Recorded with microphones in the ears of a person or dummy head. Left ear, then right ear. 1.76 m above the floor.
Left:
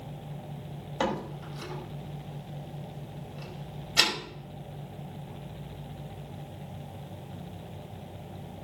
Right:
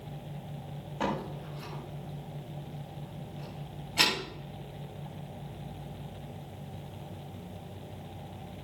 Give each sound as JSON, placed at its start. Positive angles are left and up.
{"t": 1.0, "sound": "a door slam", "side_deg": 75, "distance_m": 4.5}